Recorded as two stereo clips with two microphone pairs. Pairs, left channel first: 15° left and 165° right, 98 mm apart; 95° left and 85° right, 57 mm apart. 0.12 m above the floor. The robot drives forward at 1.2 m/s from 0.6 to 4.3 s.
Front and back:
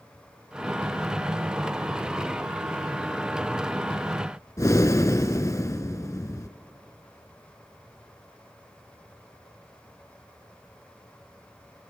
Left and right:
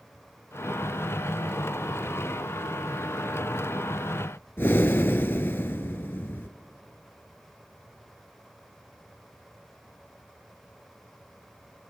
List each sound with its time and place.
4.6 s breathing: 60° left, 0.5 m